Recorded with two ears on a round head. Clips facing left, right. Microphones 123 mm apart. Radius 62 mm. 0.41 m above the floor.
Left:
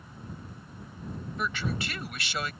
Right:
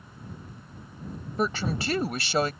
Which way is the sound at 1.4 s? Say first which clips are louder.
Right 6 dB; 30° right (ahead or behind).